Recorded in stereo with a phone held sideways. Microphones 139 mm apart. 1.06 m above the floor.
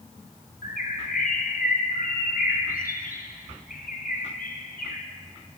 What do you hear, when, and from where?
0.6 s a bird: 80° left, 1.1 m